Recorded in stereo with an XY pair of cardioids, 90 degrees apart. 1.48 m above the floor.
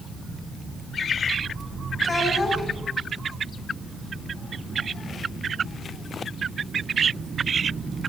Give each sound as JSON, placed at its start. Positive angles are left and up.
{"t": 2.0, "sound": "a child speaking", "azimuth_deg": 35, "distance_m": 9.0}